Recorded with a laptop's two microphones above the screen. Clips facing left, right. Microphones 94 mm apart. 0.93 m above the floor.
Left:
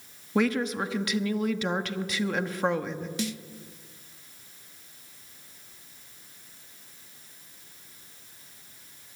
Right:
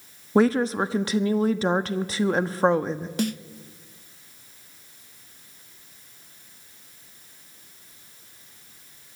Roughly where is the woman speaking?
Right.